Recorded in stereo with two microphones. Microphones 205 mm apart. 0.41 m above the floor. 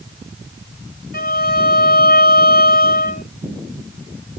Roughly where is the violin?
Left.